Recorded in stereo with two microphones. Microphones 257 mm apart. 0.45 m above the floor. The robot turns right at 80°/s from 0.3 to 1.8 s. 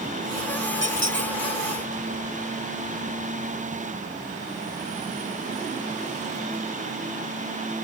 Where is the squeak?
105° right; by 1.3 s 65° right.